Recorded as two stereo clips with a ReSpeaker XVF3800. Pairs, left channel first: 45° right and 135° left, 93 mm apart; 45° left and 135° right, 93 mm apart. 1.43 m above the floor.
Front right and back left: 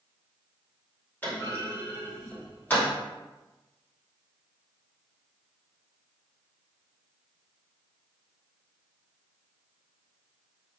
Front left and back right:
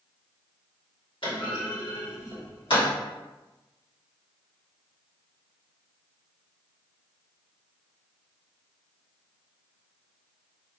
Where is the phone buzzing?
No phone buzzing in this recording.